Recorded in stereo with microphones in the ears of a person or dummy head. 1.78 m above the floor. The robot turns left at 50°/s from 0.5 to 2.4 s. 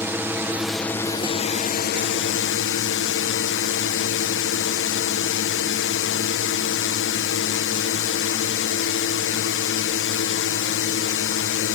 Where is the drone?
165° right; by 11.8 s 100° left.